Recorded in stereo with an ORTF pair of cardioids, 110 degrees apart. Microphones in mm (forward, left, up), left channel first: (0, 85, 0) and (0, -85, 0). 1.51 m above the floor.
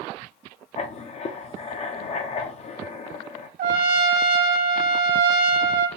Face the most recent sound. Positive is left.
turn(degrees=-60)